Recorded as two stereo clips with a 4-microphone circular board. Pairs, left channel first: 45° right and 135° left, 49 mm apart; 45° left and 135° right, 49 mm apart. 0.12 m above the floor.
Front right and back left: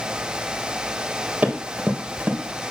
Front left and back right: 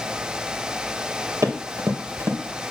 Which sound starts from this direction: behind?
Running footsteps, at 1.4 s.